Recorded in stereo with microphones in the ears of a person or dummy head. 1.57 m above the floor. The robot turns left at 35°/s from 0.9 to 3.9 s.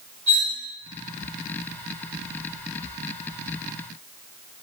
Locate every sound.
0.3 s cutlery clinking: 25° left (ahead or behind), 1.8 m